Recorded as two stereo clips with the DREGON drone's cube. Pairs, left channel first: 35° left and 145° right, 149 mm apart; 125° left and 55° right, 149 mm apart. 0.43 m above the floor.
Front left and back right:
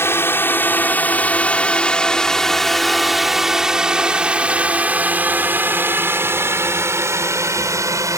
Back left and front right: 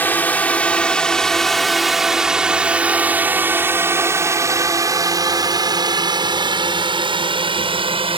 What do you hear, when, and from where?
0.0 s a drone: 70° left; by 8.2 s 85° right